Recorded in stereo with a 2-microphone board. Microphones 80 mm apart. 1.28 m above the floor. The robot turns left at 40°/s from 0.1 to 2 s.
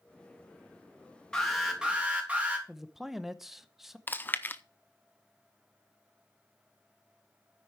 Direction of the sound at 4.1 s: 25° left (ahead or behind).